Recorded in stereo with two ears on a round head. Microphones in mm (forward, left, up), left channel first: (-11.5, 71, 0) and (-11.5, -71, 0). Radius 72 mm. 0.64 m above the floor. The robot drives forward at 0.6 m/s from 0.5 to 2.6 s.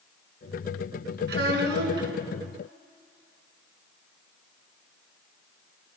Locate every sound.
1.3 s a child speaking: 65° right (ahead or behind), 3.5 m; by 2.1 s 75° right (ahead or behind), 3.5 m